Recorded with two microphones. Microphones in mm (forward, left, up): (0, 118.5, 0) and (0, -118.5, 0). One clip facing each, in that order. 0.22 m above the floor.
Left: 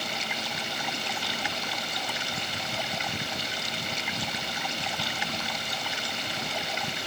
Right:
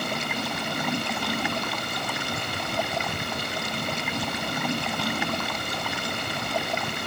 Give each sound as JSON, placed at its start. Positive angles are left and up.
{"t": 0.0, "sound": "running water", "side_deg": -60}